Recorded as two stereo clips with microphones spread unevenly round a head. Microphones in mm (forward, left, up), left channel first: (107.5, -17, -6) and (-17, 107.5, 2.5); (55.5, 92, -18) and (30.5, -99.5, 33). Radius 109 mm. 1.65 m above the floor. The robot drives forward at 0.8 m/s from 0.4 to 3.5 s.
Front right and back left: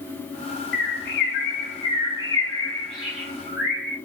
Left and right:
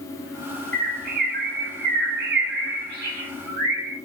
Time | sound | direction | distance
0.7 | a bird | 65° right | 1.5 m